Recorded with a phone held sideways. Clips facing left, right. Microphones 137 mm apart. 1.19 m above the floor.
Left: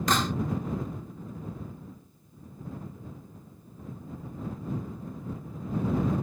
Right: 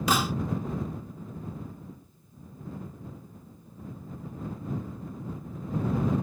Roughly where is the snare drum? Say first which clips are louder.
Right 1 dB; centre.